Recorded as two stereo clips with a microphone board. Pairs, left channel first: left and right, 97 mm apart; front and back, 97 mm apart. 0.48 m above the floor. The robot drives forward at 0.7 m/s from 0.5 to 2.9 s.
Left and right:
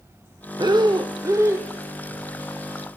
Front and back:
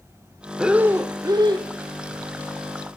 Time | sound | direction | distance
0.6 | breathing | 95° right | 0.6 m